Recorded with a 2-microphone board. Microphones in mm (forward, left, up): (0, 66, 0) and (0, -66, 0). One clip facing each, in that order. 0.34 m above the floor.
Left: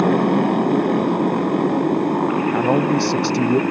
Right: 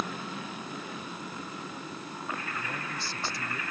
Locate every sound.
0.0 s a motorcycle: 65° left (ahead or behind)
2.5 s a man speaking: 70° left (ahead or behind)